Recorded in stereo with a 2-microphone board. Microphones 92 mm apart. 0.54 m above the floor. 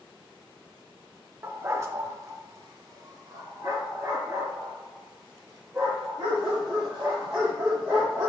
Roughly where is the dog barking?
Right.